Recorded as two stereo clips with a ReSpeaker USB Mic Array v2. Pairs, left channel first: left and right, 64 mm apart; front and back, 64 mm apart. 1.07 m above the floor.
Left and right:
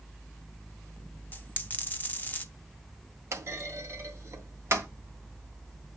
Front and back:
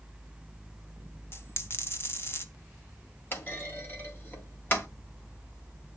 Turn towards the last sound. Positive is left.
turn(degrees=-55)